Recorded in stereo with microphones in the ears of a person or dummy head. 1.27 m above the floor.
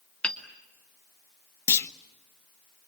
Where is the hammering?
5° left (ahead or behind), 2.5 m.